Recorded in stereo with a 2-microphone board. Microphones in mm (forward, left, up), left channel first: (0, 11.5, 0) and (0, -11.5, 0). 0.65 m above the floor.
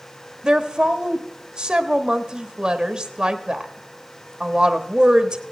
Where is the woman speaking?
30° right (ahead or behind), 1.1 m.